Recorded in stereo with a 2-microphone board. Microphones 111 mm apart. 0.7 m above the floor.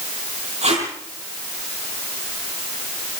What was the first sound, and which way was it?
Tape being pulled, 65° right (ahead or behind).